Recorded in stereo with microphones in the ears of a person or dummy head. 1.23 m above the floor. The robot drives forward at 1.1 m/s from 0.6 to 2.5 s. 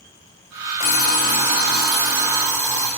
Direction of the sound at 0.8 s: 40° left (ahead or behind).